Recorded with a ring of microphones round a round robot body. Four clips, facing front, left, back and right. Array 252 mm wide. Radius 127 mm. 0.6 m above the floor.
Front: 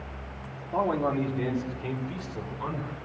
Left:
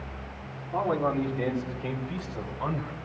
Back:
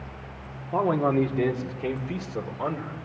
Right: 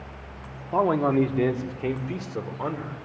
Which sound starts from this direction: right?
A man speaking, at 0.7 s.